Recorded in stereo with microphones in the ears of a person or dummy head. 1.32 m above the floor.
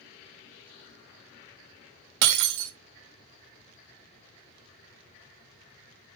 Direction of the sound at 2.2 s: 55° right (ahead or behind).